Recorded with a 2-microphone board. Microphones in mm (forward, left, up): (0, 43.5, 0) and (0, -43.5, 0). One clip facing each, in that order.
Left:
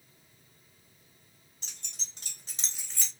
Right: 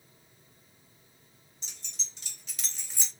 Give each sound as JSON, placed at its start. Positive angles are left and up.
{"t": 1.6, "sound": "keys jangling", "side_deg": 65, "distance_m": 1.6}